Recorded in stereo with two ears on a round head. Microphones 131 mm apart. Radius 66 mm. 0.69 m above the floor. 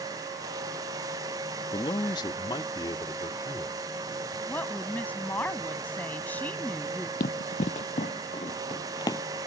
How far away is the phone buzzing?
No phone buzzing in this recording.